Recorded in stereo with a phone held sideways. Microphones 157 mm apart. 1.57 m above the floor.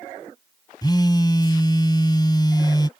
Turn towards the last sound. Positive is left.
turn(degrees=25)  # may be behind; listen again after turning